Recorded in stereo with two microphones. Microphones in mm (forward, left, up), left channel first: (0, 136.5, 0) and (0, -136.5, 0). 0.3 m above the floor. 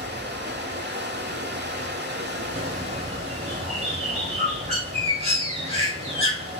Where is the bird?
20° right (ahead or behind), 1.4 m.